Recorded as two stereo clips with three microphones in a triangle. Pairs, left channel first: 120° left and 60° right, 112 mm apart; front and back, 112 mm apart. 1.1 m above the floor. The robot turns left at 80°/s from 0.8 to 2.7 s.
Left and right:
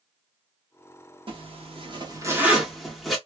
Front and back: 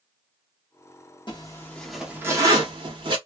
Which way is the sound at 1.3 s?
35° right.